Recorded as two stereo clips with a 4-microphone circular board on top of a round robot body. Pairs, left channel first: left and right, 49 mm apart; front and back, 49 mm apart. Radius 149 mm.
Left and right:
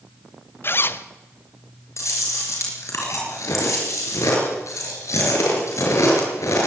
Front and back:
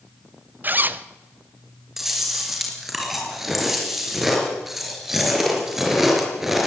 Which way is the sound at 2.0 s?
95° left.